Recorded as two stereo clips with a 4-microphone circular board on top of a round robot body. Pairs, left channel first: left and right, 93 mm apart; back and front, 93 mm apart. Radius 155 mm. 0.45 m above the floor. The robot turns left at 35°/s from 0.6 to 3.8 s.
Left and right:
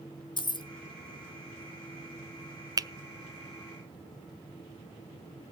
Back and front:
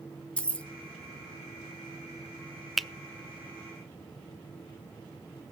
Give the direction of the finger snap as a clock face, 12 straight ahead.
3 o'clock.